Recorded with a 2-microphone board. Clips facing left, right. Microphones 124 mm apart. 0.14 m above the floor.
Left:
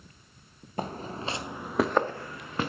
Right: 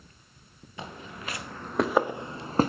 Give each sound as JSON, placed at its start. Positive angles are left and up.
{"t": 0.8, "sound": "footsteps", "side_deg": 45, "distance_m": 1.2}